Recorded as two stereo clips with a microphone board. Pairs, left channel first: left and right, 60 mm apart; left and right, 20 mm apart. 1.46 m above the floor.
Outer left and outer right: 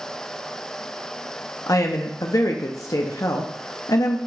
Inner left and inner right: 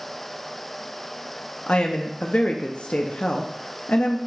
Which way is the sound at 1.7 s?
65° left (ahead or behind).